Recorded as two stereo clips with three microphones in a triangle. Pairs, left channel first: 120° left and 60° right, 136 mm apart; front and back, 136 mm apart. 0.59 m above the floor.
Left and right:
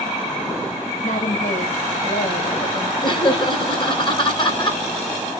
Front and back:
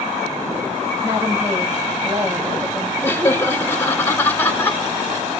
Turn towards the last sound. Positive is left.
turn(degrees=75)